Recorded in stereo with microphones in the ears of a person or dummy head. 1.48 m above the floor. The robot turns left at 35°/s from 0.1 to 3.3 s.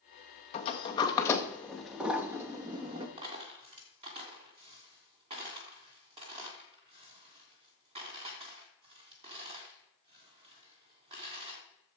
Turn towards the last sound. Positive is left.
turn(degrees=-35)  # may be behind; listen again after turning